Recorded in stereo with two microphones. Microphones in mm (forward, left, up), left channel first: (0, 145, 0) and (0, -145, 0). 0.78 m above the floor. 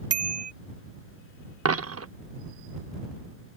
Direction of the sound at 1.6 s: 55° right (ahead or behind).